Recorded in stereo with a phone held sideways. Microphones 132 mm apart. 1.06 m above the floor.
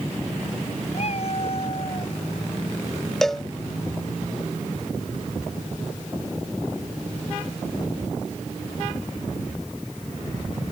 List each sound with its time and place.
0.9 s a cat meowing: 55° left (ahead or behind); by 2.1 s 45° left (ahead or behind)
3.2 s a cowbell: centre (ahead or behind)